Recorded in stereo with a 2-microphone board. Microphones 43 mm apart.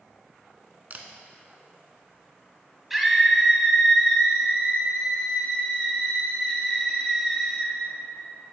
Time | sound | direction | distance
0.9 | a camera shutter | 40° right (ahead or behind) | 0.6 m
2.9 | a scream | 5° right (ahead or behind) | 1.0 m